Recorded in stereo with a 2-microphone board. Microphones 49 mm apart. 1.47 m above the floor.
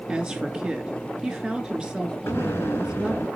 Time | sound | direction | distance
0.1 | a woman speaking | 15° right (ahead or behind) | 2.5 m
2.3 | an explosion | 55° left (ahead or behind) | 2 m